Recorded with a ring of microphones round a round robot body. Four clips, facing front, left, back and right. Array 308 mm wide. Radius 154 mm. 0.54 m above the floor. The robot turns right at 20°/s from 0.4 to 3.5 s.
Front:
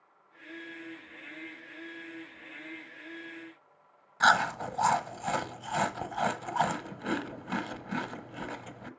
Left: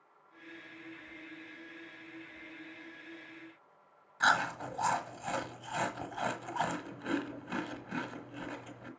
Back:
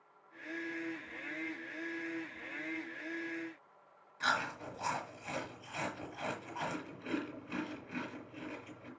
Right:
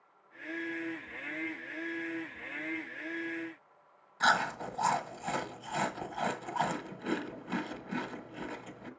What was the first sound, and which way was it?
Chewing, straight ahead.